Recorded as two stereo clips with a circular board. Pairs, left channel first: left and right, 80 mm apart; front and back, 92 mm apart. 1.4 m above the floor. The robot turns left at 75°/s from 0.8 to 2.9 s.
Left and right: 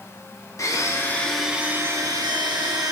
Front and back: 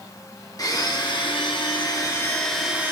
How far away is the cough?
I don't hear a cough.